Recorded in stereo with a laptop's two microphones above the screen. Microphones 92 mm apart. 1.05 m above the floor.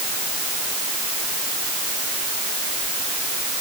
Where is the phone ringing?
I don't hear a phone ringing.